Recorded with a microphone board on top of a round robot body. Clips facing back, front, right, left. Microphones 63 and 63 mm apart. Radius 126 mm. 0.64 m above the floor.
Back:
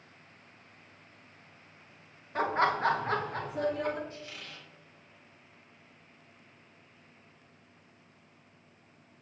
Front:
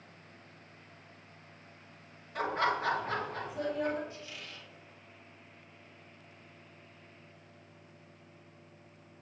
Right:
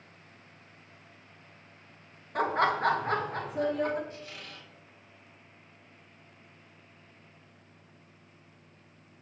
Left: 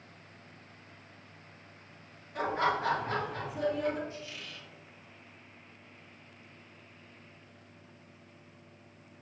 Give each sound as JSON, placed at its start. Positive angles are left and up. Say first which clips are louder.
{"t": 2.4, "sound": "laughter", "louder": "back 3 dB, right 3 dB", "azimuth_deg": -120, "distance_m": 1.6}
{"t": 4.1, "sound": "a squeak", "louder": "back 1 dB, even", "azimuth_deg": -135, "distance_m": 1.8}